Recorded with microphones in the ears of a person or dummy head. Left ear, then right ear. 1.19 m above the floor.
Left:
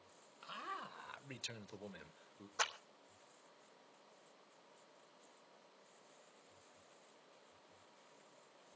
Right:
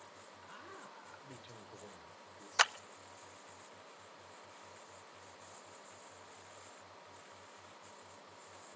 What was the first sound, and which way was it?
A man speaking, 30° left (ahead or behind).